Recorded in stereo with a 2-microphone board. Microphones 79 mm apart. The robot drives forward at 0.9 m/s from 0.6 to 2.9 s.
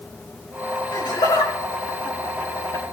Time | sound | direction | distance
0.9 | laughter | 85° left | 3 m